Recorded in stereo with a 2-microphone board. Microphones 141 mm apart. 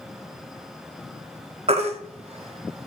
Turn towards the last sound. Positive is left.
turn(degrees=-50)  # may be behind; listen again after turning